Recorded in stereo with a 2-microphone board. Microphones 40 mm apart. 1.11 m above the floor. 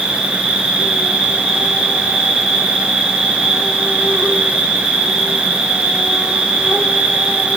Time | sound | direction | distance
0.0 | an insect | centre (ahead or behind) | 1.4 m